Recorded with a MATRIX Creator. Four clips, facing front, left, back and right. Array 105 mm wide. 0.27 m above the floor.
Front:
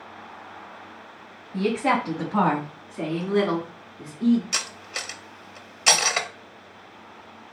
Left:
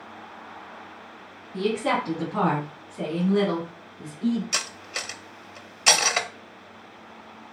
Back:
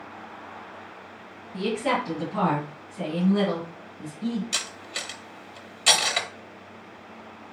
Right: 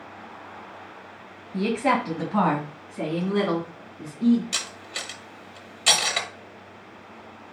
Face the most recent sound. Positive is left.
turn(degrees=45)